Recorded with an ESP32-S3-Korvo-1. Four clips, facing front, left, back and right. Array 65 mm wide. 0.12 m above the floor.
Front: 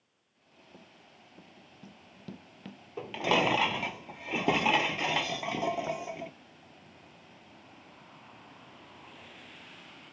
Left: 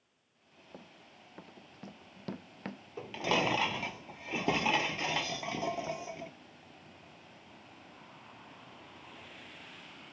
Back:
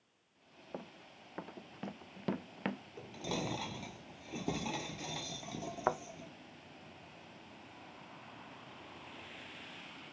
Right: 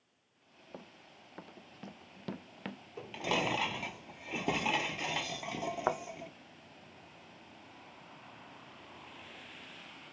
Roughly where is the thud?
Behind right.